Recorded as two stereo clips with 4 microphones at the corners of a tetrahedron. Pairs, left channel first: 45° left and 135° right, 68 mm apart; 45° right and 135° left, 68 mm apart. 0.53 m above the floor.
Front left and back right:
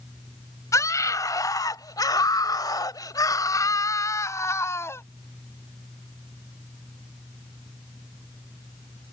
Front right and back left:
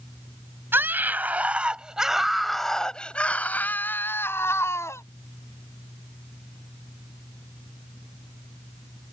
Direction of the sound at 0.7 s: 80° left.